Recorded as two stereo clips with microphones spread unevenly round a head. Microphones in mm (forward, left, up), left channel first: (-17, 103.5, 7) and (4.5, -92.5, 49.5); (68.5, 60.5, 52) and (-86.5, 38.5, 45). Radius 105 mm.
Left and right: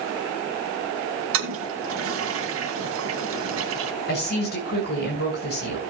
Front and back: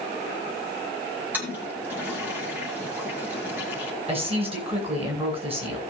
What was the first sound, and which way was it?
A toilet flushing, 90° right.